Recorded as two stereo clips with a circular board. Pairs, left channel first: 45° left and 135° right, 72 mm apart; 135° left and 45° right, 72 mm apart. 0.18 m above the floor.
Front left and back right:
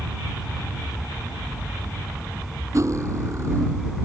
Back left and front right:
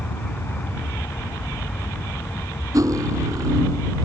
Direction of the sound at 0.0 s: 135° left.